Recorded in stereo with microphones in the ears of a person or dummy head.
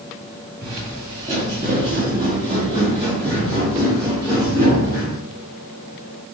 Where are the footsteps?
30° right (ahead or behind), 1.4 m; by 5.2 s 25° right (ahead or behind), 4 m.